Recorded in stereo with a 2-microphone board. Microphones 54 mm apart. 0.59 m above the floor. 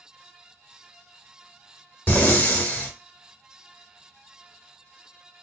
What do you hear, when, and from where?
2.1 s breathing: 30° left (ahead or behind), 0.8 m